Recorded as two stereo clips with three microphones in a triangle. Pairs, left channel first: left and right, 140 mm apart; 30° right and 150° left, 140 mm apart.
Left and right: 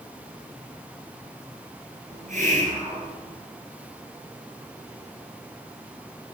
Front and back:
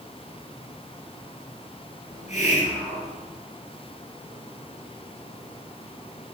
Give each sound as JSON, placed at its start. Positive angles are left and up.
{"t": 2.1, "sound": "a hiss", "azimuth_deg": -65, "distance_m": 1.6}